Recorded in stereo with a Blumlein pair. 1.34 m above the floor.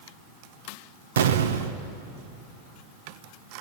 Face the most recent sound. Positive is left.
turn(degrees=-60)